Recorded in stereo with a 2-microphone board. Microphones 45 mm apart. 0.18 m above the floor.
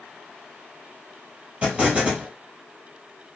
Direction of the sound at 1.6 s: 25° right (ahead or behind).